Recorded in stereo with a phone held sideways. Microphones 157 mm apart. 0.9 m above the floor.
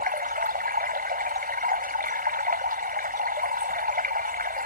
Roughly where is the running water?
Right.